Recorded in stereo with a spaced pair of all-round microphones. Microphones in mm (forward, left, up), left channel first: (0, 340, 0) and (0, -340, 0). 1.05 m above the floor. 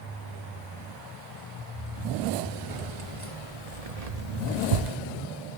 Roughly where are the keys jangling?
Right.